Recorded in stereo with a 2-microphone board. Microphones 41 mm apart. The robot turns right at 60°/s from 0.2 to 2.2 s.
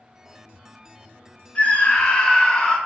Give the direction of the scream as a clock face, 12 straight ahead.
8 o'clock.